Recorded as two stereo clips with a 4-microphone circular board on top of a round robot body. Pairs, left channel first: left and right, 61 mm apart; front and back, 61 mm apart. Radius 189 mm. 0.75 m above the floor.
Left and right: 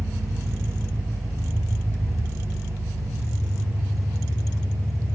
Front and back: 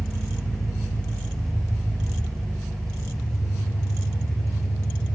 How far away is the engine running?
About 2.5 m.